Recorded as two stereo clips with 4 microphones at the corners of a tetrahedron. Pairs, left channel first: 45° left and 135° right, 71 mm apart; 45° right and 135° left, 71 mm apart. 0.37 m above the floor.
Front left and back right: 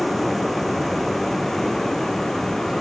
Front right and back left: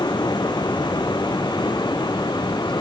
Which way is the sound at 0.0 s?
45° right.